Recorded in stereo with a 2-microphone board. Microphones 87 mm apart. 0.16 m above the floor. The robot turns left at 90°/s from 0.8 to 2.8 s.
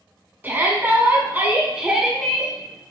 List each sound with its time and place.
0.4 s a shout: 20° right (ahead or behind), 1.1 m; by 2.5 s 15° left (ahead or behind), 1.1 m